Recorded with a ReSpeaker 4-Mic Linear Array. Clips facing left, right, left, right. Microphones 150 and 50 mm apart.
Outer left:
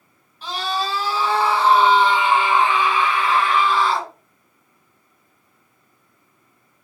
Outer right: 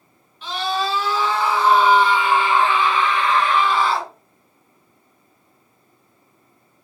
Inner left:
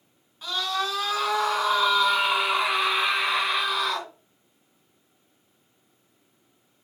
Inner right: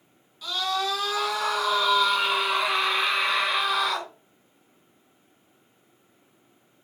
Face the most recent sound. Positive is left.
turn(degrees=-5)  # may be behind; listen again after turning